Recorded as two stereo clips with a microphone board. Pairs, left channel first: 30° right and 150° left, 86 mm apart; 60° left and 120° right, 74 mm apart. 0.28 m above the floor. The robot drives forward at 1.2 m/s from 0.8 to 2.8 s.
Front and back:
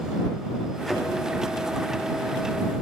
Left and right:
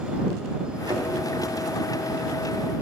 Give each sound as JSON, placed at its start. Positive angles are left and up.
{"t": 0.9, "sound": "a thud", "azimuth_deg": -115, "distance_m": 2.5}